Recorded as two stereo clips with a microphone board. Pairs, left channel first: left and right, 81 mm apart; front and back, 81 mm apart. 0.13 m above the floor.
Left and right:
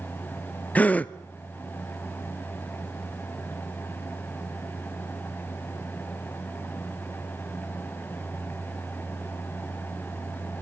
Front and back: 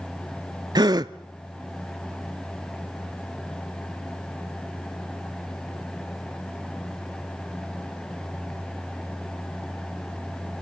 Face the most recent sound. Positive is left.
turn(degrees=160)